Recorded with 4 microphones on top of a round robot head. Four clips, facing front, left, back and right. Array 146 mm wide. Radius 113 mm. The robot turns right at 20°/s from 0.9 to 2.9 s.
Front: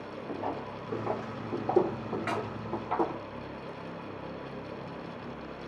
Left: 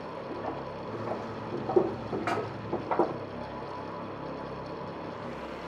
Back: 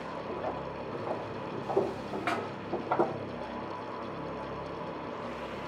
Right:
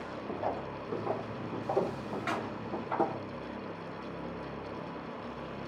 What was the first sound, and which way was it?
Footsteps, 60° right.